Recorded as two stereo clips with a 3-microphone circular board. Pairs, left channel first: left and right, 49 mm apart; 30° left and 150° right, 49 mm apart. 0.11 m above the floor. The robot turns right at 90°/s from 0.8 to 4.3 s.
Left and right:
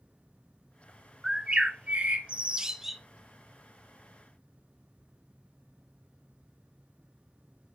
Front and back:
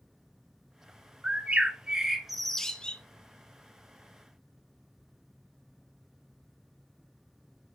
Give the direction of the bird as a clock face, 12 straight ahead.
5 o'clock.